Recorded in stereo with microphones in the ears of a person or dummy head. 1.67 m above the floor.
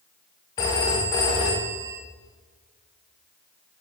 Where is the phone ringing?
25° left (ahead or behind), 0.8 m.